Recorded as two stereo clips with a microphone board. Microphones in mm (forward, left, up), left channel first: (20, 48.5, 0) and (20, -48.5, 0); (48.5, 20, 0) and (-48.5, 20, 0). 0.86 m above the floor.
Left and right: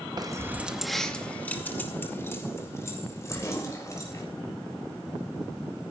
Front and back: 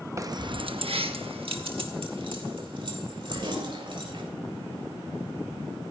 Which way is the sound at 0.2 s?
130° right.